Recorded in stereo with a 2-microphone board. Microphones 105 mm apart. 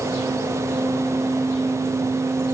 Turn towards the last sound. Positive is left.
No sound to turn to.